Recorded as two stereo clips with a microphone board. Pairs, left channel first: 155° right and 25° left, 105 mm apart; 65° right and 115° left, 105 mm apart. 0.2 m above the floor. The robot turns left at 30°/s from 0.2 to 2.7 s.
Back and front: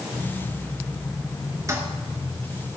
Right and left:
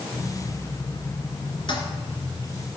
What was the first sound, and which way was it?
A toilet flushing, 35° right.